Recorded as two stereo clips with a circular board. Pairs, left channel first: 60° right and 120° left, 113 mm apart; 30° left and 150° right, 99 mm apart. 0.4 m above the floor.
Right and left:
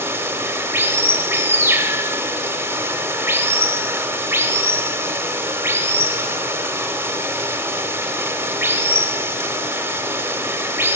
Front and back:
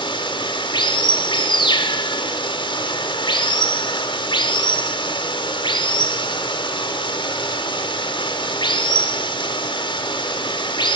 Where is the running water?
50° left, 0.9 m.